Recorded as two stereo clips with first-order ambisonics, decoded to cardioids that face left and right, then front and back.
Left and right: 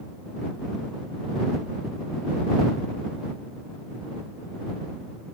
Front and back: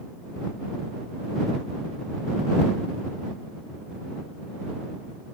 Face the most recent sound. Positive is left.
No sound to turn to.